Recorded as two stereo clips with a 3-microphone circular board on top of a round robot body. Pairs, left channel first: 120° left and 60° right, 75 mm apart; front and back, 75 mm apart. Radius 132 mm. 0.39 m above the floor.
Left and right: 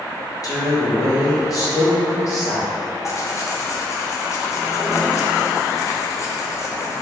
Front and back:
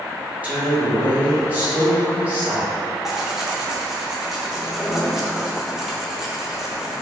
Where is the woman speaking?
115° left, 1.8 m.